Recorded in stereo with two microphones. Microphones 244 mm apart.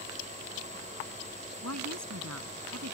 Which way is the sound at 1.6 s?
85° right.